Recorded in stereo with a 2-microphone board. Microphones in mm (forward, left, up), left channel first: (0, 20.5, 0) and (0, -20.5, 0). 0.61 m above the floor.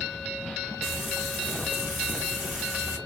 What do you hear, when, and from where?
0.8 s frying: 15° right (ahead or behind), 1.9 m